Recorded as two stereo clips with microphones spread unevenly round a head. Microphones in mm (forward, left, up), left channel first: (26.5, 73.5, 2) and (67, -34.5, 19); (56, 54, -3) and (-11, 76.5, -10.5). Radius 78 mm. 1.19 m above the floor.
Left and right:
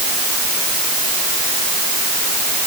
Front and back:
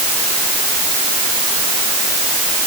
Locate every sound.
Only background noise.